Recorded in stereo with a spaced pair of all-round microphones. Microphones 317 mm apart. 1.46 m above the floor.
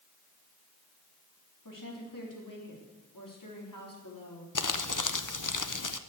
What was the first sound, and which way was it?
A woman speaking, 90° left.